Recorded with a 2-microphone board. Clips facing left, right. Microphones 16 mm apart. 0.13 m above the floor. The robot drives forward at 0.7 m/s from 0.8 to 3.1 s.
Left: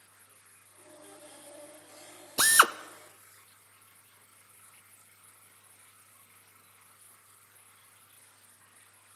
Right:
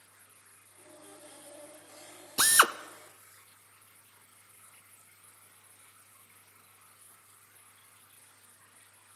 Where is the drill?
15° left (ahead or behind), 0.5 m.